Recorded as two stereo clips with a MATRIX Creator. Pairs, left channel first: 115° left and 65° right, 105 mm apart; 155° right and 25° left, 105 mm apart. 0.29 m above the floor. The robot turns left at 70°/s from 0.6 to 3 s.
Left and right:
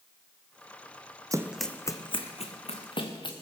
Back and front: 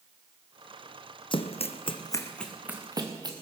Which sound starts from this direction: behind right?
Running footsteps, at 1.3 s.